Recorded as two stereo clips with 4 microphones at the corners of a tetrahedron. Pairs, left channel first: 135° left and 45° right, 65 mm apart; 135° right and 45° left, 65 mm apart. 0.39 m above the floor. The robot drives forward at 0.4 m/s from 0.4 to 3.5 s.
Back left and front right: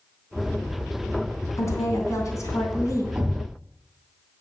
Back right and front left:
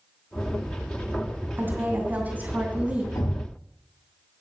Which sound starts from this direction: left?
A woman speaking, at 1.6 s.